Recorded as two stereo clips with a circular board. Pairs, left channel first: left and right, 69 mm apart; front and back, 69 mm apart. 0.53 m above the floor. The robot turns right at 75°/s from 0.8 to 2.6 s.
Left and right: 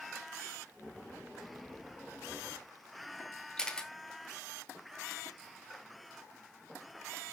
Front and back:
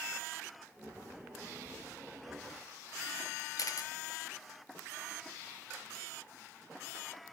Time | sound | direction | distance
3.6 | a camera shutter | 15° left | 1.3 m